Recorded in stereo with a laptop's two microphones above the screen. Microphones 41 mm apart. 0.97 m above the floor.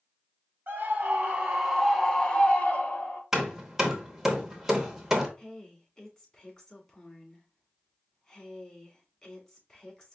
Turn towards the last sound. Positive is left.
turn(degrees=20)  # may be behind; listen again after turning